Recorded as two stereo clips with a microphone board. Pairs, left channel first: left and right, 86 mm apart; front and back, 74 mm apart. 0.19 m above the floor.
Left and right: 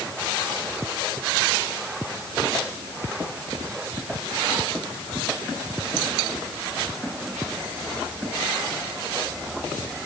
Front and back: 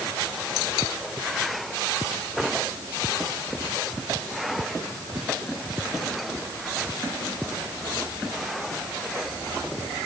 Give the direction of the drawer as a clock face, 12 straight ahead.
I don't hear a drawer.